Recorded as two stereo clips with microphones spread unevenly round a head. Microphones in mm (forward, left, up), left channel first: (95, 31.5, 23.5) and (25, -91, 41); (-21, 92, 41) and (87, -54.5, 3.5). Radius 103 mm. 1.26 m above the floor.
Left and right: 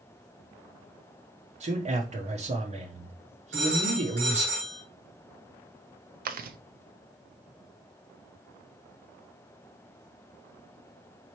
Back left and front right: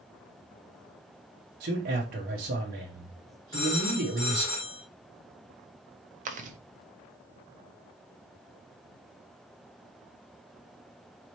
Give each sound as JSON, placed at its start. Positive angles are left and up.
{"t": 1.6, "sound": "a man speaking", "azimuth_deg": -75, "distance_m": 0.9}
{"t": 3.5, "sound": "a phone ringing", "azimuth_deg": -160, "distance_m": 2.5}
{"t": 6.2, "sound": "chewing", "azimuth_deg": -95, "distance_m": 0.7}